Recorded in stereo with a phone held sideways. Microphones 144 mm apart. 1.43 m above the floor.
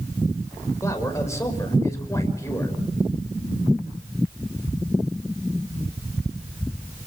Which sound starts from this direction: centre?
A man speaking, at 0.8 s.